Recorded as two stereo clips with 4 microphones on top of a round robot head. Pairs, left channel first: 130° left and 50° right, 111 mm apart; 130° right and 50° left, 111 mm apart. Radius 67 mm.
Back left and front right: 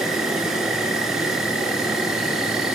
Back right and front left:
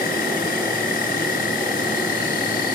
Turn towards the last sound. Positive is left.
turn(degrees=-135)